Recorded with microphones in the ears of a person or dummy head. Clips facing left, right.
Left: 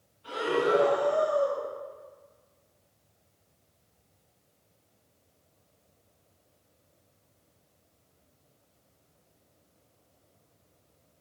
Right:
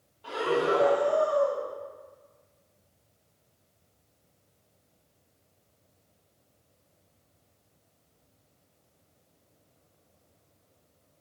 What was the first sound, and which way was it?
Breathing, 80° right.